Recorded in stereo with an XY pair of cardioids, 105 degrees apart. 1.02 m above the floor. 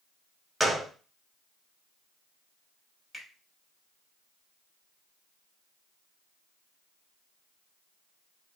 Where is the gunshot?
10° right, 1.0 m.